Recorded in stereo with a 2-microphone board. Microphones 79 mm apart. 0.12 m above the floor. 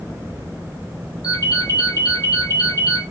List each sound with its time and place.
1.2 s a ringtone: 55° left (ahead or behind), 1.4 m